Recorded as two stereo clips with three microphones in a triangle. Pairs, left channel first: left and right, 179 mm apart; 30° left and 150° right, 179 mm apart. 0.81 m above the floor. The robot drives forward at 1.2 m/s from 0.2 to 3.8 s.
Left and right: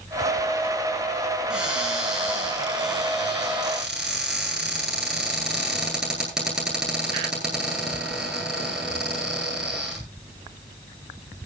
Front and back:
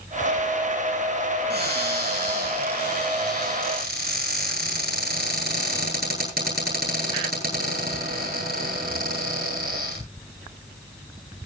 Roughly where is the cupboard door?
Behind.